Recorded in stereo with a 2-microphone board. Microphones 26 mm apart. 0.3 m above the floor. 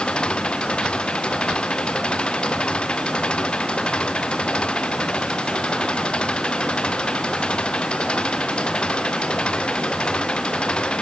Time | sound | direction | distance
0.0 | an engine running | 35° left (ahead or behind) | ?